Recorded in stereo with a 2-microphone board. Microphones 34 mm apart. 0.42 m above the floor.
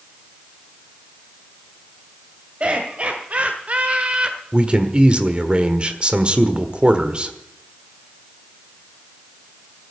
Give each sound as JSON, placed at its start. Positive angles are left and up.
{"t": 2.6, "sound": "laughter", "side_deg": -35, "distance_m": 2.0}
{"t": 4.5, "sound": "a man speaking", "side_deg": -30, "distance_m": 1.4}